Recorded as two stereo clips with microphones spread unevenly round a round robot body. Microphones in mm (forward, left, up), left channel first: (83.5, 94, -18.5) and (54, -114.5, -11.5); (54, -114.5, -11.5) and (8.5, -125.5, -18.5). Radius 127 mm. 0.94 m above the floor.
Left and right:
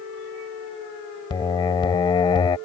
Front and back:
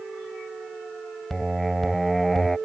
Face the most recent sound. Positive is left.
turn(degrees=60)